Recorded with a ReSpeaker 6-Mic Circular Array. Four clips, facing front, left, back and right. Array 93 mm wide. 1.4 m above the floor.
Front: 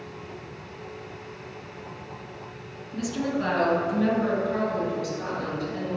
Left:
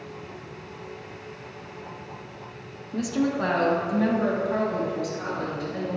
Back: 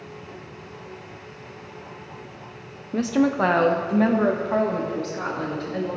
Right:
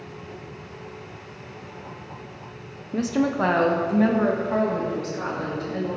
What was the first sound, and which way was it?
A woman speaking, 155° right.